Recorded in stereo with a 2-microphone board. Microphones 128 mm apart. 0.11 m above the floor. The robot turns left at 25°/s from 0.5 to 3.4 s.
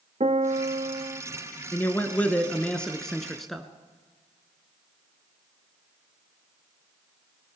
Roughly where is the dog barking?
No dog barking in this recording.